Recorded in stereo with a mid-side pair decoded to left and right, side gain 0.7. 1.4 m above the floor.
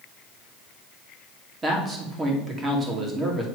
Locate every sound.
1.6 s a man speaking: 20° right, 2.5 m